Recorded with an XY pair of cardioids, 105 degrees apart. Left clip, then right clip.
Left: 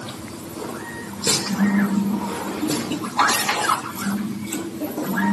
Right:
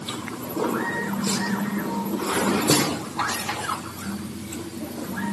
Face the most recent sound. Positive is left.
No sound to turn to.